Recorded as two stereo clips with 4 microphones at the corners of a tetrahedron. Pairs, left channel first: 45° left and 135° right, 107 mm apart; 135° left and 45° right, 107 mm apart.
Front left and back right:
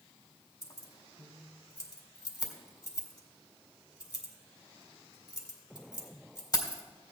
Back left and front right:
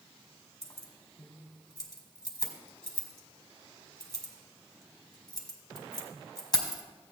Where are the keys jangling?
90° left, 1.8 m.